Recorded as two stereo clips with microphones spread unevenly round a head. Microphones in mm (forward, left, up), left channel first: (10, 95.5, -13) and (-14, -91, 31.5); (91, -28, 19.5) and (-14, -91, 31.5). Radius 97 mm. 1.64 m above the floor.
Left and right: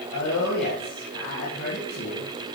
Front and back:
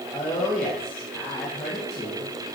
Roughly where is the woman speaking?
Behind left.